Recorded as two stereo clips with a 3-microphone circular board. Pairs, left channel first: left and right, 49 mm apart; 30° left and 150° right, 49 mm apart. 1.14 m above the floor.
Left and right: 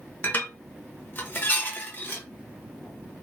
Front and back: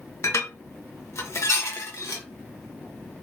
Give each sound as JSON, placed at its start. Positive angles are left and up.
{"t": 0.2, "sound": "dishes clattering", "azimuth_deg": 40, "distance_m": 0.7}